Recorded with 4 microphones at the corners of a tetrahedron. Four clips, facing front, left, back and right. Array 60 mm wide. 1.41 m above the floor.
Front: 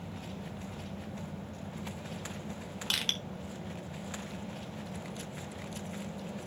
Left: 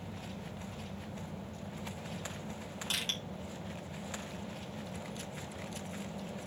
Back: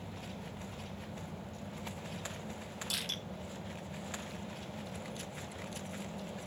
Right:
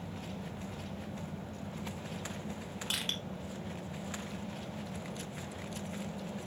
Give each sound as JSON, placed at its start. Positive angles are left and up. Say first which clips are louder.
{"t": 2.9, "sound": "crushing", "louder": "even, front 7 dB", "azimuth_deg": -5, "distance_m": 3.5}